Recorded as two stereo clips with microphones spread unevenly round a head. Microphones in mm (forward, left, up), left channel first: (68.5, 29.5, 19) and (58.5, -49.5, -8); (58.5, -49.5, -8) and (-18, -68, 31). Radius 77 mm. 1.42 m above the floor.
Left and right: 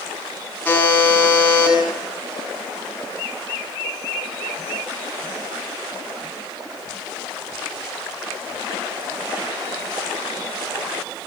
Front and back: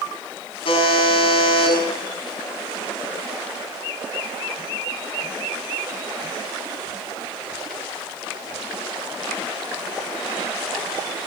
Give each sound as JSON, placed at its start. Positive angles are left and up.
{"t": 0.7, "sound": "a buzzer", "azimuth_deg": 15, "distance_m": 8.5}